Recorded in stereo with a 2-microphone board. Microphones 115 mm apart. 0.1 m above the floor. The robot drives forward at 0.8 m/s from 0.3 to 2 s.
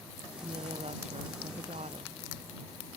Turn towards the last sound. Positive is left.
turn(degrees=-75)  # may be behind; listen again after turning